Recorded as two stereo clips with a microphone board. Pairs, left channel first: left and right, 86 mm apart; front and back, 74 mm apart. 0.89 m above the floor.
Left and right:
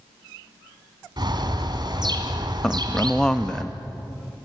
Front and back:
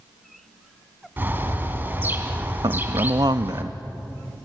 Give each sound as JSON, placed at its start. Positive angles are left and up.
{"t": 1.2, "sound": "a bird", "azimuth_deg": -120, "distance_m": 2.5}
{"t": 2.6, "sound": "a man speaking", "azimuth_deg": 170, "distance_m": 0.8}